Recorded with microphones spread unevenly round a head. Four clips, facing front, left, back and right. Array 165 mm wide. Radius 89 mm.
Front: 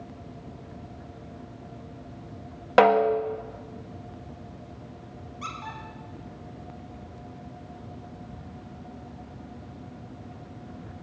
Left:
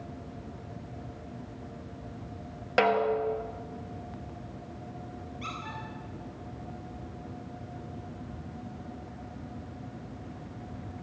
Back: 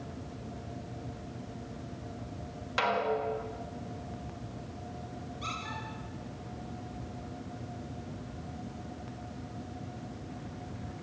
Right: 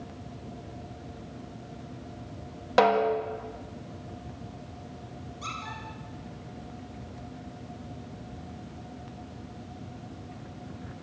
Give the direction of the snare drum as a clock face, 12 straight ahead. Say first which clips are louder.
Right 3 dB, front 11 dB; 12 o'clock.